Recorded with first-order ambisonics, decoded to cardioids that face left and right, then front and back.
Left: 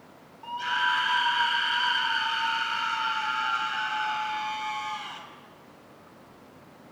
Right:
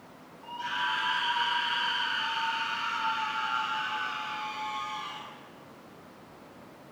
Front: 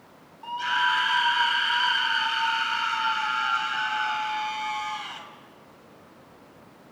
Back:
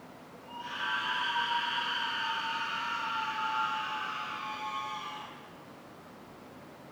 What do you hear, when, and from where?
0.4 s a scream: 25° left, 4 m